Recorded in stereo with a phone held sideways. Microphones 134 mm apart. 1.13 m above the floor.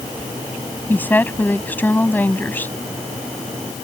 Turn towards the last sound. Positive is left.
turn(degrees=15)  # may be behind; listen again after turning